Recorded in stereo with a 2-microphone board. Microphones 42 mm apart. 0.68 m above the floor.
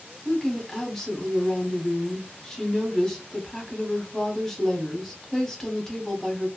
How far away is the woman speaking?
About 0.9 m.